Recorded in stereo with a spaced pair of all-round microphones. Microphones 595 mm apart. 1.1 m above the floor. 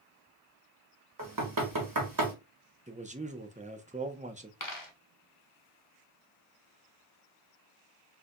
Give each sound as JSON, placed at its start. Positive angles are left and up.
{"t": 1.2, "sound": "knocking", "side_deg": -35, "distance_m": 1.0}
{"t": 2.9, "sound": "a man speaking", "side_deg": -15, "distance_m": 0.5}
{"t": 4.6, "sound": "a dropped coin", "side_deg": 35, "distance_m": 0.9}